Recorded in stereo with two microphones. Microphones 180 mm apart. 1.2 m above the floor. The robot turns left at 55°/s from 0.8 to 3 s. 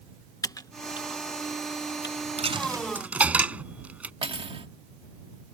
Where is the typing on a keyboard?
20° left (ahead or behind); by 2.2 s 85° left.